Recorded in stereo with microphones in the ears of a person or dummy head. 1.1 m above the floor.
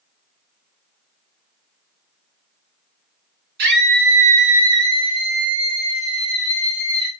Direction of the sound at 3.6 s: 60° right (ahead or behind).